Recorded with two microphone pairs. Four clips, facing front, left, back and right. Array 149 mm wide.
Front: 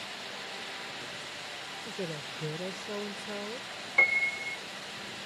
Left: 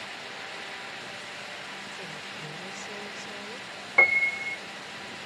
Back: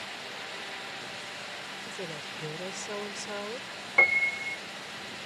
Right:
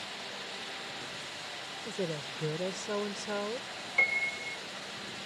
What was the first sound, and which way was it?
A woman speaking, 90° right.